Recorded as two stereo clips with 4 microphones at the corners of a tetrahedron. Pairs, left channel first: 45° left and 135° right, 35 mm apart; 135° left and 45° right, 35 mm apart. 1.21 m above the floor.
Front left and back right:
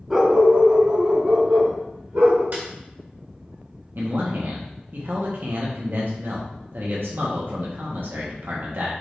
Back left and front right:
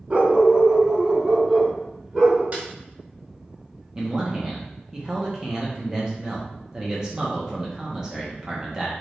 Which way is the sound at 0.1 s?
65° right.